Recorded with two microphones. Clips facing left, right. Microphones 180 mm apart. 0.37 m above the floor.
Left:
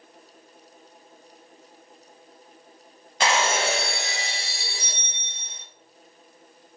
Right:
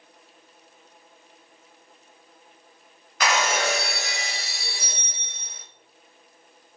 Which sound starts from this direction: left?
Breaking glass, at 3.2 s.